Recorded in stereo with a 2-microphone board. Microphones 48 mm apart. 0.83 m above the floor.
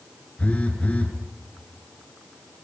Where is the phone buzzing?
25° left (ahead or behind), 4 m.